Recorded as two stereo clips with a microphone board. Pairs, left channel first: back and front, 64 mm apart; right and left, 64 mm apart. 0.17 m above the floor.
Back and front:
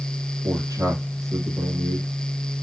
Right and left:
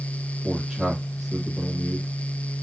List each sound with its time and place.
0.4 s a man speaking: 5° left, 4 m